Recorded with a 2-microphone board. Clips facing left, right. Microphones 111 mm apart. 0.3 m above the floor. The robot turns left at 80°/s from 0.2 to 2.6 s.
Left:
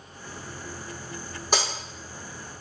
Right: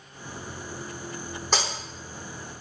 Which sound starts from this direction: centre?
Breaking glass, at 1.5 s.